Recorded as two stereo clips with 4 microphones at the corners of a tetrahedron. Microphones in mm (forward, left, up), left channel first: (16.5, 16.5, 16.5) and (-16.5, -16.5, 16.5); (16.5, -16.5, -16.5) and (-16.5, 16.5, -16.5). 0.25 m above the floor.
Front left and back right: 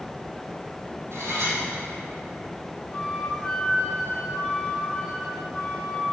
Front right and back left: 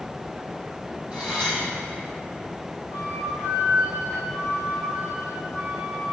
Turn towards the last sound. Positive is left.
turn(degrees=100)